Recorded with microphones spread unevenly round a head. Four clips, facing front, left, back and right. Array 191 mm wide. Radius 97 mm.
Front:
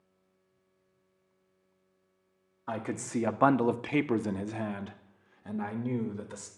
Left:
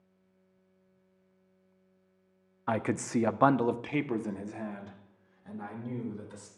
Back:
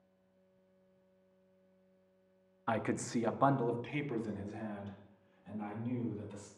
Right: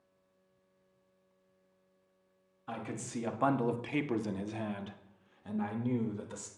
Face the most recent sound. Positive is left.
turn(degrees=-25)